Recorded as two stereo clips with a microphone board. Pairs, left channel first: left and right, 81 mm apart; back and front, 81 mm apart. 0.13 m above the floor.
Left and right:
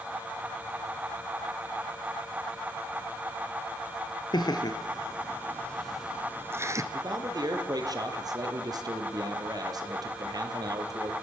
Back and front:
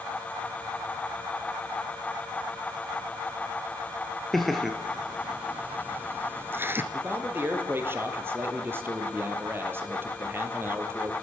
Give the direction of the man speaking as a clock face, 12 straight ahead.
2 o'clock.